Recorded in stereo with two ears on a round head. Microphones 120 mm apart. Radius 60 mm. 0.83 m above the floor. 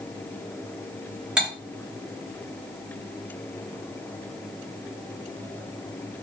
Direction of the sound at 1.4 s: 5° right (ahead or behind).